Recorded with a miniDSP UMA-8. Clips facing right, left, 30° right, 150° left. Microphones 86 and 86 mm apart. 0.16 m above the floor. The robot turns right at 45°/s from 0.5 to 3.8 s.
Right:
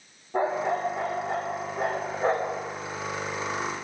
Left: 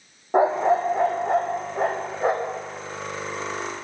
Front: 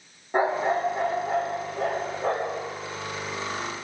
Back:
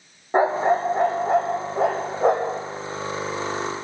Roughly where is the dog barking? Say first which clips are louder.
Left 7 dB, back 4 dB; left.